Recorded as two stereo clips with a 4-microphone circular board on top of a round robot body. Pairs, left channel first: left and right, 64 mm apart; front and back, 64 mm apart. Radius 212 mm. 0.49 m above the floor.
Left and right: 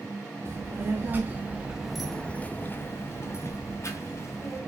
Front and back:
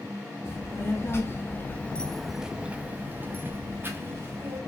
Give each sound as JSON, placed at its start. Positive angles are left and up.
{"t": 0.5, "sound": "a child speaking", "azimuth_deg": -40, "distance_m": 1.2}